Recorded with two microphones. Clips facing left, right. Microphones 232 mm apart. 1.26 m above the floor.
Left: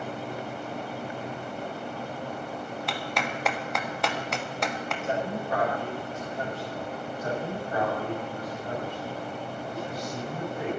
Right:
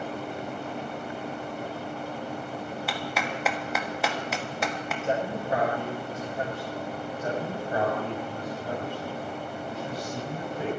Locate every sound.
2.9 s a clap: 5° right (ahead or behind), 1.3 m
5.0 s a man speaking: 40° right (ahead or behind), 7.5 m
7.2 s a man speaking: 30° right (ahead or behind), 5 m